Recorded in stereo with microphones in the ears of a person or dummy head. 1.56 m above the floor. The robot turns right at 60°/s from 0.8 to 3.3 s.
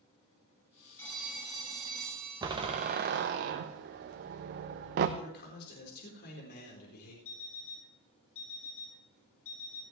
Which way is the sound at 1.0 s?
170° left.